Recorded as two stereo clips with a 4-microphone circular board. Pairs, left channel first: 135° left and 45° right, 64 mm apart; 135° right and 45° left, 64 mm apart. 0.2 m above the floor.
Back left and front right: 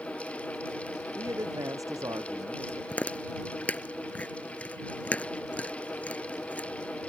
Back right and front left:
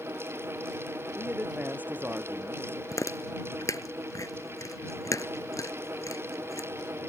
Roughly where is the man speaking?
Ahead.